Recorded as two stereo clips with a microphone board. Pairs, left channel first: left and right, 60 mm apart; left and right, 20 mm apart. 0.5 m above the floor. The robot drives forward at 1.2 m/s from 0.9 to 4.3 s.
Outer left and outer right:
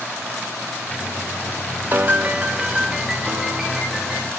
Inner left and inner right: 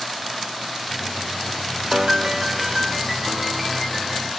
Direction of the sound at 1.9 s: 40° right (ahead or behind).